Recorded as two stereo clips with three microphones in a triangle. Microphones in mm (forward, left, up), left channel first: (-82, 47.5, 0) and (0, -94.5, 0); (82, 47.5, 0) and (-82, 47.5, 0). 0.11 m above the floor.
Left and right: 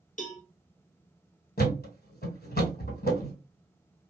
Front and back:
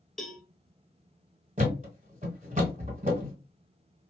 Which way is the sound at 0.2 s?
90° left.